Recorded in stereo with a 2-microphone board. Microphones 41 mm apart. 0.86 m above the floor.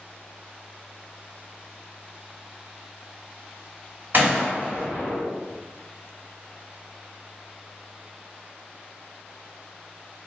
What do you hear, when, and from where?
4.1 s a gunshot: 55° right (ahead or behind), 1.9 m